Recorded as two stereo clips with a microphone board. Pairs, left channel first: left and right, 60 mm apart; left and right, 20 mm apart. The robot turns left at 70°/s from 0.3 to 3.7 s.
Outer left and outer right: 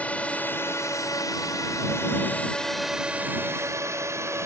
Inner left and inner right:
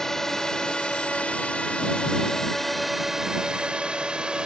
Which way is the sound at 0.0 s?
25° left (ahead or behind).